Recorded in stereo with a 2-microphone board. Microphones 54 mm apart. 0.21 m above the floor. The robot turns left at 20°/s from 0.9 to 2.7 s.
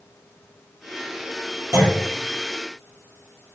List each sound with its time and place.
1.7 s a clunk: 65° right (ahead or behind), 3.5 m; by 2.1 s 70° right (ahead or behind), 3.5 m